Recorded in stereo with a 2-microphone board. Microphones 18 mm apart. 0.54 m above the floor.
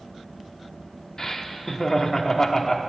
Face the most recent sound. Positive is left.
turn(degrees=35)  # may be behind; listen again after turning